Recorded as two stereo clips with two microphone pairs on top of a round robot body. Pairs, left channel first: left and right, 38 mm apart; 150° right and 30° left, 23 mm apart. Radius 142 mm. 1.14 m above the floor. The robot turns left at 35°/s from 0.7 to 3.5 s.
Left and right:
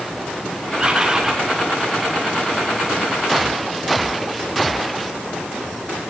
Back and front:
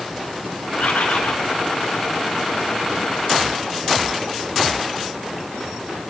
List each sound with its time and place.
0.8 s a bird: 155° right, 3 m; by 1.4 s 175° right, 3 m